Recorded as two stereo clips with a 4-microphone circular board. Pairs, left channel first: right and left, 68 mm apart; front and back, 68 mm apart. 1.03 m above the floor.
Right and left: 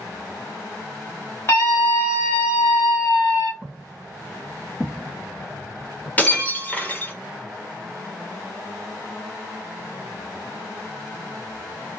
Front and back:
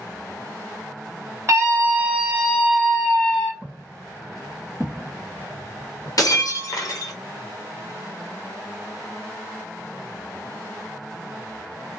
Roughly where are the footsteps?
Behind right.